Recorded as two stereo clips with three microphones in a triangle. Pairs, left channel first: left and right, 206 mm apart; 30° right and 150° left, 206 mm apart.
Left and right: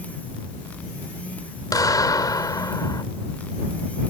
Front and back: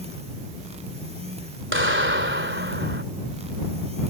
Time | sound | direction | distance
1.7 | a clap | 160° left | ?